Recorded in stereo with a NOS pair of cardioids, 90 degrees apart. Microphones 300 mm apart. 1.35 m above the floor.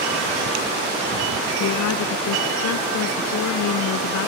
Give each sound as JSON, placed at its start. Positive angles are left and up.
{"t": 1.6, "sound": "a woman speaking", "azimuth_deg": 70}